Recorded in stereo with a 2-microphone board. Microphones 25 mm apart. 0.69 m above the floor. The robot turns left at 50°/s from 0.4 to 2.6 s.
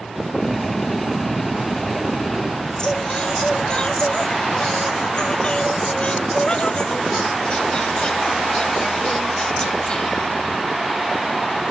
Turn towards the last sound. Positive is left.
turn(degrees=40)  # may be behind; listen again after turning